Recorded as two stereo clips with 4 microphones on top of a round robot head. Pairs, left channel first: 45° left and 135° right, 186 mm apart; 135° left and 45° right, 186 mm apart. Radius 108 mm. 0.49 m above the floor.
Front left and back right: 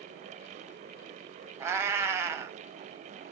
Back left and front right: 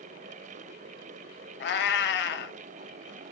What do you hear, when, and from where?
1.6 s a cat meowing: 150° left, 0.6 m